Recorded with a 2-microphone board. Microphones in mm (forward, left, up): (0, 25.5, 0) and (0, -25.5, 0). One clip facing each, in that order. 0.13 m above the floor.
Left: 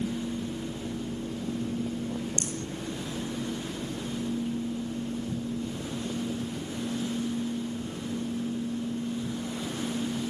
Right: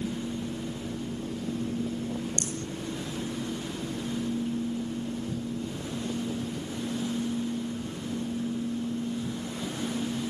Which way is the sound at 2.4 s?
20° left (ahead or behind).